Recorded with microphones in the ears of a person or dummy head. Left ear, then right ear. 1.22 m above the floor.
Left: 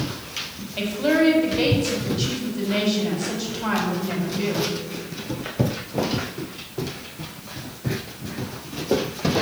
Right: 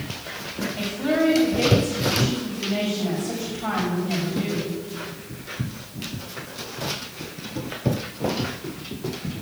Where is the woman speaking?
55° left (ahead or behind), 5 m.